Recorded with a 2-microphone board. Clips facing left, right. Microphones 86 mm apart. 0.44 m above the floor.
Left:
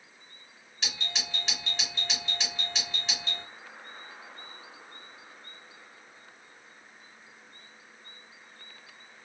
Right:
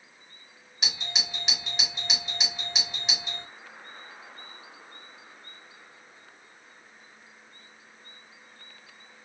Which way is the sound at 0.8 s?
15° right (ahead or behind).